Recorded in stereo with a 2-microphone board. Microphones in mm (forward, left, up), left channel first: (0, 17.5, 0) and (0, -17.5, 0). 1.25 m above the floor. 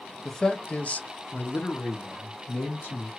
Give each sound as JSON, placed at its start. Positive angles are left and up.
{"t": 0.2, "sound": "a man speaking", "side_deg": 15, "distance_m": 0.7}